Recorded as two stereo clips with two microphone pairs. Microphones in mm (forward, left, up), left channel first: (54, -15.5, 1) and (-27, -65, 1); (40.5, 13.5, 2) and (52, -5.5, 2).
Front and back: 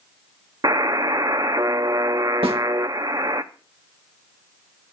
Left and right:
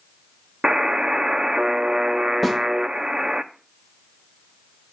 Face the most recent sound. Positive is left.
turn(degrees=-155)